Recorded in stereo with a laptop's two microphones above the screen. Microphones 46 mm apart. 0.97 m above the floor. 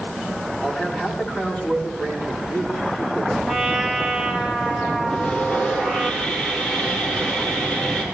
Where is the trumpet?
Centre (ahead or behind), 2 m.